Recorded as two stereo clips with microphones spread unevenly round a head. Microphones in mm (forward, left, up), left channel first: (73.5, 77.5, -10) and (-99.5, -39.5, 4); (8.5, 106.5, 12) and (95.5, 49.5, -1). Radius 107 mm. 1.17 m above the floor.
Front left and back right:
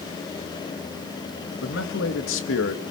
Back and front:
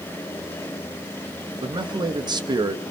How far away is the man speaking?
About 2 m.